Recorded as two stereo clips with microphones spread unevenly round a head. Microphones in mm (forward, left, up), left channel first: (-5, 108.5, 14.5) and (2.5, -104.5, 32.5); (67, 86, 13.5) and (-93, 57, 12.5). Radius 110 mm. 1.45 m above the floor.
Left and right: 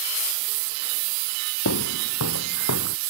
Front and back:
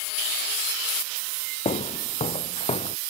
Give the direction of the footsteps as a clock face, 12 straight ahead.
10 o'clock.